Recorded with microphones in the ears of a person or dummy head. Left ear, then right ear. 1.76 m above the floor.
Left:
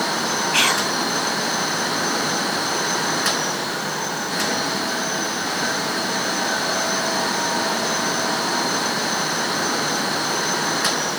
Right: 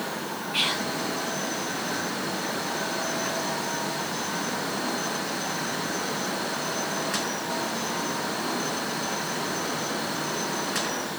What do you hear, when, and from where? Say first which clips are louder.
0.5 s whispering: left 6 dB; 45° left (ahead or behind), 0.5 m